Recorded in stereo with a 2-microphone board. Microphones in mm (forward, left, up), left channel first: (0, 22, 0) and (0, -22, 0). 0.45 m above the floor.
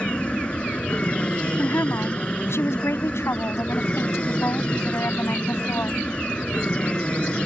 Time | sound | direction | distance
0.0 | an aircraft | 25° left (ahead or behind) | ?
1.6 | a woman speaking | 70° left (ahead or behind) | ?